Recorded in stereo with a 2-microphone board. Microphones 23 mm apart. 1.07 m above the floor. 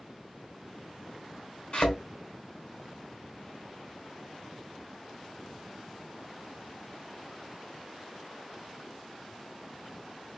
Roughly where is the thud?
Left.